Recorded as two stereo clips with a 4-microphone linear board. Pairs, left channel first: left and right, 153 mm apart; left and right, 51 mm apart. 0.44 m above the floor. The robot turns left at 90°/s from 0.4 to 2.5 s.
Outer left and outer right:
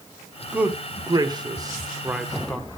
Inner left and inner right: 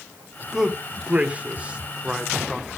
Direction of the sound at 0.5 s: 10° right (ahead or behind).